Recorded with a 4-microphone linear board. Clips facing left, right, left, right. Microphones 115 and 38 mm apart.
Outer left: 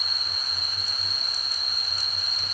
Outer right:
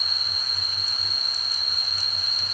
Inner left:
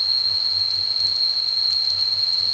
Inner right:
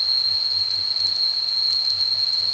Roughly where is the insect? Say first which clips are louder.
Even, even; left.